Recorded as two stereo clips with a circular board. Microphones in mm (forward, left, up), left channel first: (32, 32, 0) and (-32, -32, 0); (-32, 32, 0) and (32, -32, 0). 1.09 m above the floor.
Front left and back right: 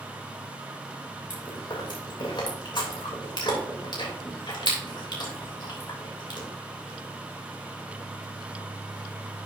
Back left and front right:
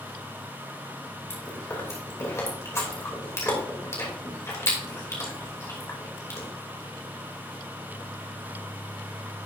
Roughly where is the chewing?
Left.